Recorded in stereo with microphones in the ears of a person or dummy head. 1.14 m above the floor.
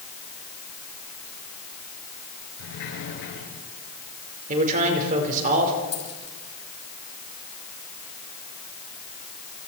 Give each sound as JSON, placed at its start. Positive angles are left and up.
{"t": 2.6, "sound": "a sliding door", "side_deg": 75, "distance_m": 7.0}
{"t": 4.5, "sound": "a man speaking", "side_deg": -40, "distance_m": 4.5}
{"t": 5.9, "sound": "a dropped coin", "side_deg": 30, "distance_m": 6.5}